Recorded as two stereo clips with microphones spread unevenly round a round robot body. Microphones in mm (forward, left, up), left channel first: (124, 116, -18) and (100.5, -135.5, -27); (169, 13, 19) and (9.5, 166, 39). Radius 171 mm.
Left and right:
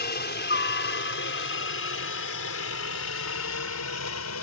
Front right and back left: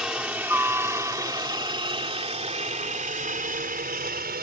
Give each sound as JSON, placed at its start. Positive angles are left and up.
{"t": 0.0, "sound": "a helicopter", "azimuth_deg": 50}